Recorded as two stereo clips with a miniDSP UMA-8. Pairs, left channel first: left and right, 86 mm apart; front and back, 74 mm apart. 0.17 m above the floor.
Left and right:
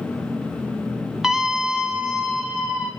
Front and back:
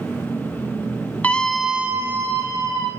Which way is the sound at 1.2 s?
15° right.